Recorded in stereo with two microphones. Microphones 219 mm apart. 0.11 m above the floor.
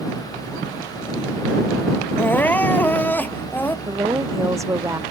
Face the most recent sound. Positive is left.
turn(degrees=-15)  # may be behind; listen again after turning